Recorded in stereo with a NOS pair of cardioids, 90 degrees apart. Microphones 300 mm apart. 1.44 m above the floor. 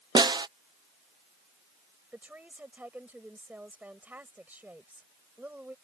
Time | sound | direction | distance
0.1 | a snare drum | 15° right | ?
2.1 | a woman speaking | 5° right | ?